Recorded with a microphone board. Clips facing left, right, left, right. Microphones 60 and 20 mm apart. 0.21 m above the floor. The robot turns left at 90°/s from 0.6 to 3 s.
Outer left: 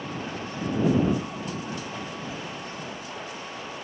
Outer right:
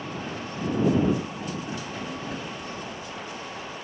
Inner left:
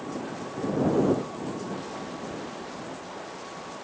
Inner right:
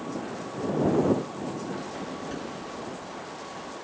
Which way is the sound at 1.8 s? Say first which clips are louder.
Outer right 1 dB, inner right 1 dB; 25° right.